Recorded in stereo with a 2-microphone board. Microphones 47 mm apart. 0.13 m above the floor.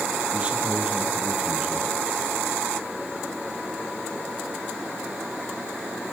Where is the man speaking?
30° right (ahead or behind), 3 m.